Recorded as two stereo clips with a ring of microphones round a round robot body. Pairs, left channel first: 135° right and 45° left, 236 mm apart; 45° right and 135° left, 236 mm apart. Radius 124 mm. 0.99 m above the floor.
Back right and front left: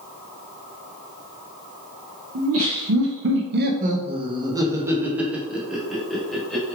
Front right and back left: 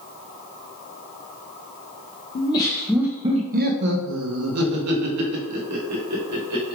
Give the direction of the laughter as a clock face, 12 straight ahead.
11 o'clock.